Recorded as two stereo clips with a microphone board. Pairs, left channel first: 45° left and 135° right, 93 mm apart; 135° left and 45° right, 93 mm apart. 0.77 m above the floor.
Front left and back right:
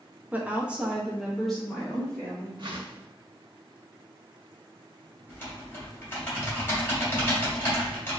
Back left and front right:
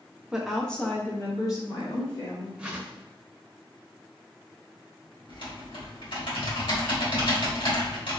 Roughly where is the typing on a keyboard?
Left.